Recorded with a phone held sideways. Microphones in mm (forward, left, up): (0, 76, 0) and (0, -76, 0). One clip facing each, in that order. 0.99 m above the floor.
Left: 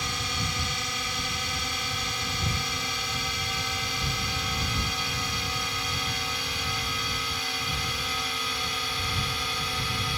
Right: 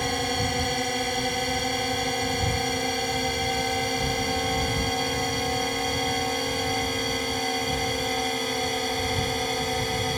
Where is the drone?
50° right (ahead or behind); by 10.2 s 45° right (ahead or behind).